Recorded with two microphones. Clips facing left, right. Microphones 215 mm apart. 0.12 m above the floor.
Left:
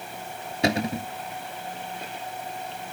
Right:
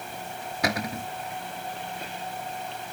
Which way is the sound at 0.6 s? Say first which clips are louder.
Left 5 dB; 25° left (ahead or behind).